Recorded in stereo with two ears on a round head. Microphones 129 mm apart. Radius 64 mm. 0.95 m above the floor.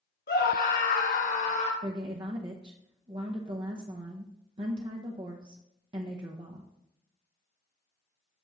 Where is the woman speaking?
35° right (ahead or behind), 0.7 m.